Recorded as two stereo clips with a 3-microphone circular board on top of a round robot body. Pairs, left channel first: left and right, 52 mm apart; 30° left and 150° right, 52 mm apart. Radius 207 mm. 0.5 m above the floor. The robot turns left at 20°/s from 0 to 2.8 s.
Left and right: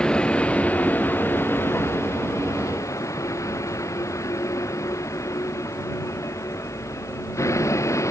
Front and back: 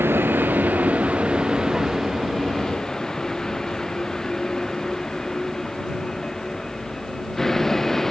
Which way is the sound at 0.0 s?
165° left.